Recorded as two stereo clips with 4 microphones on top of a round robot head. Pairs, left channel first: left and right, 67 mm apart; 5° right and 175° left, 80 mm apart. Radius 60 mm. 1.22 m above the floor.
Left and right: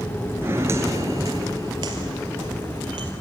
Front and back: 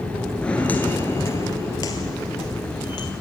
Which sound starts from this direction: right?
Footsteps, at 0.4 s.